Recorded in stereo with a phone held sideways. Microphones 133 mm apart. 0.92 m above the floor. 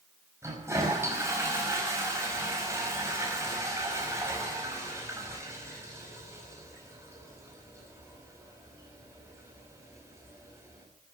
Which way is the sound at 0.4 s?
20° right (ahead or behind).